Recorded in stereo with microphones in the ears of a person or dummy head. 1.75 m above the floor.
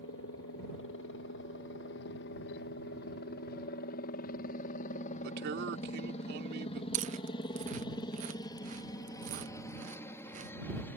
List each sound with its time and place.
0.0 s a helicopter: 65° left (ahead or behind); by 11.0 s 15° left (ahead or behind)
5.2 s a man speaking: 60° right (ahead or behind)
6.9 s chewing: 45° right (ahead or behind)